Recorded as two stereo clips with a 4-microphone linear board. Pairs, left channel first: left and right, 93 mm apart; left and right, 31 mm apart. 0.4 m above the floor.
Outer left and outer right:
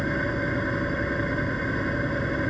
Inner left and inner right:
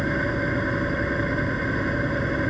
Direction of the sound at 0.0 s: 5° left (ahead or behind).